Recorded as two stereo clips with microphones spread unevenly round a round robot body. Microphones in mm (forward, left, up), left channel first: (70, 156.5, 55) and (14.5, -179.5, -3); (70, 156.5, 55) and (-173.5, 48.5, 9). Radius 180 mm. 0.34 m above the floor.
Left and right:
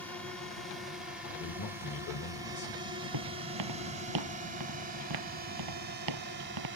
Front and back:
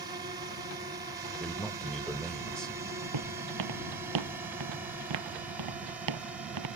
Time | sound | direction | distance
0.0 | a drone | straight behind | ?
1.4 | a man speaking | 125° left | ?
3.1 | footsteps | 145° right | ?